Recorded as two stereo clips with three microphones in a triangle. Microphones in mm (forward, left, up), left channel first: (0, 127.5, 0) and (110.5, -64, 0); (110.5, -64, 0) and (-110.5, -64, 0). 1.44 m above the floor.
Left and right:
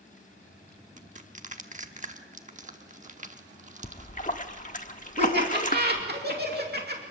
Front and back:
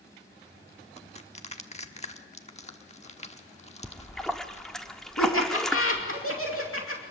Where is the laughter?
15° right, 2.5 m.